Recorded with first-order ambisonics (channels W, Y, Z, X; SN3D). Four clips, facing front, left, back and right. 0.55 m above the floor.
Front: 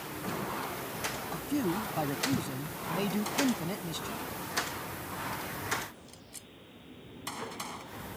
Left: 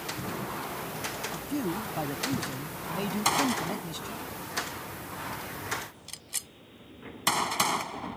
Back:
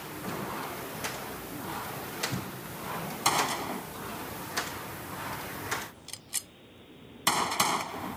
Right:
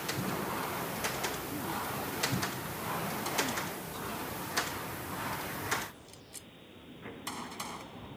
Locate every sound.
1.3 s a man speaking: 40° left
3.2 s a gunshot: 135° left